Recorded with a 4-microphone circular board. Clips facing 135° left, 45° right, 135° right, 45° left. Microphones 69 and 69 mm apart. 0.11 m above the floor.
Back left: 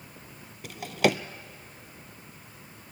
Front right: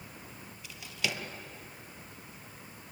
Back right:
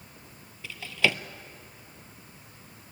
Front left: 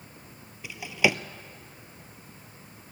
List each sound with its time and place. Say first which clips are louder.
0.6 s a drawer: back left 12 dB, front left 2 dB; 120° left, 0.6 m